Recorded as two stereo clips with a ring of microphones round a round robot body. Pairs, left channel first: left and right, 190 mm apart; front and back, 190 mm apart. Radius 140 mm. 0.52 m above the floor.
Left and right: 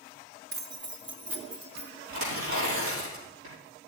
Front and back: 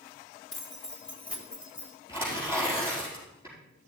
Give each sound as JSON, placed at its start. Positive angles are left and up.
{"t": 0.5, "sound": "keys jangling", "azimuth_deg": -70, "distance_m": 1.2}
{"t": 2.1, "sound": "tearing paper", "azimuth_deg": -100, "distance_m": 5.0}